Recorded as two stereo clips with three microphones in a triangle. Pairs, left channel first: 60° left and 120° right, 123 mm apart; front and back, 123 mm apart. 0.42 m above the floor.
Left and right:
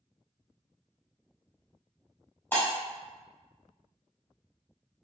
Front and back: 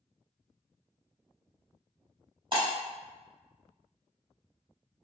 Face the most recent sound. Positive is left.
turn(degrees=135)